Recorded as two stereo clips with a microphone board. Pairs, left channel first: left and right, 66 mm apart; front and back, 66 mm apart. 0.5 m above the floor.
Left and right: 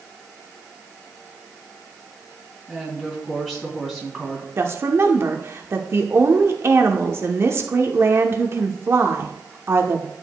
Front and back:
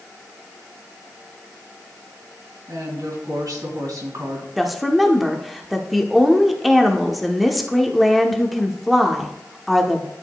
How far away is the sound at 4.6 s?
About 0.8 m.